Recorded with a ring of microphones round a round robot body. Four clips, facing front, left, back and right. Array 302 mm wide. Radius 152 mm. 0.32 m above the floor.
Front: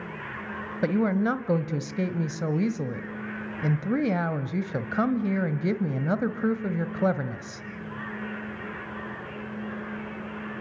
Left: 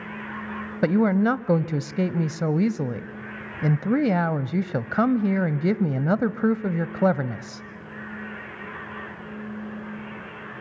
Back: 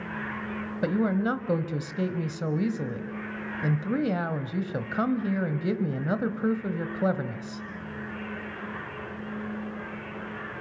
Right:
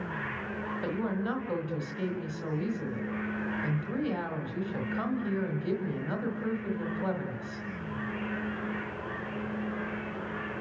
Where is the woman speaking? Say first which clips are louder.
Left 13 dB, front 2 dB; 85° left, 1.5 m.